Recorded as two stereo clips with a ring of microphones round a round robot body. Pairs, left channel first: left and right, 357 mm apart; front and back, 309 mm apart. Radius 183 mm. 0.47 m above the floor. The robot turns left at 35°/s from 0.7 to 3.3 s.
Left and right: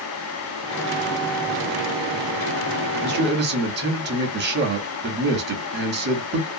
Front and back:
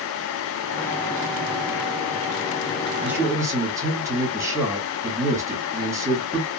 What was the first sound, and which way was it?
A man speaking, 100° right.